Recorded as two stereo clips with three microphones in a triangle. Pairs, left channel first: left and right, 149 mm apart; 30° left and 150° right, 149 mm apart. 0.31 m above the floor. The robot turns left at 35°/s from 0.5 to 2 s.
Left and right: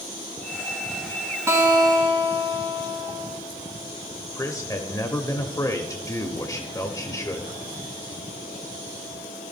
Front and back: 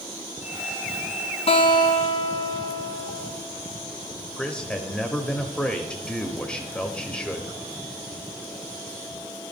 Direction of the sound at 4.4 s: 100° left.